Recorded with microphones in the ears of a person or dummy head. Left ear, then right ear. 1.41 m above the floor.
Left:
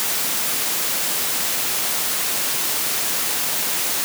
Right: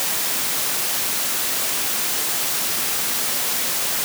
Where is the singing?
I don't hear singing.